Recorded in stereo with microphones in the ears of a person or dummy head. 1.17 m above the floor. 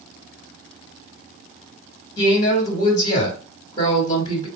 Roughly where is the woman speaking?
Left.